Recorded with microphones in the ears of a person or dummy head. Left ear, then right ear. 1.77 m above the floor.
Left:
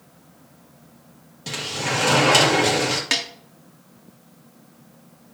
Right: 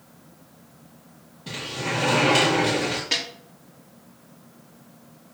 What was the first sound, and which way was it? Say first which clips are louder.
A sliding door: left 3 dB; 60° left (ahead or behind).